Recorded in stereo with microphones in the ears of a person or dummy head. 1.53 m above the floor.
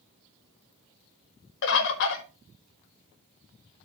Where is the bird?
65° left (ahead or behind), 1.8 m.